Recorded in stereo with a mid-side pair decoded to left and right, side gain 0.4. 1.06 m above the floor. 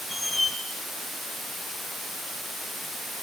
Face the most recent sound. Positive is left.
turn(degrees=15)